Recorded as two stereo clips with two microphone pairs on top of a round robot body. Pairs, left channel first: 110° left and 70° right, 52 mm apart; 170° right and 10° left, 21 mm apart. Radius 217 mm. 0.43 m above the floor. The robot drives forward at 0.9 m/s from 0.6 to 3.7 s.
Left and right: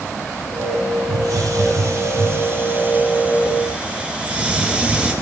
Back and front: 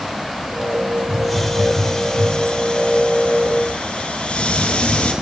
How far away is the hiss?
About 1.7 m.